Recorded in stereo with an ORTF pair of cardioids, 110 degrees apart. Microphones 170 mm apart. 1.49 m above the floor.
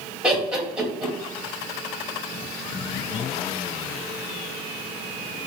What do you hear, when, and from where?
0.2 s laughter: 5° right, 2.0 m